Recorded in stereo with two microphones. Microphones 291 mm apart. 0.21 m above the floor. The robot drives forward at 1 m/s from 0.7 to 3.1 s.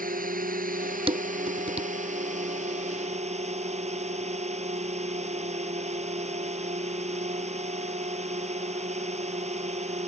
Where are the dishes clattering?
20° right (ahead or behind).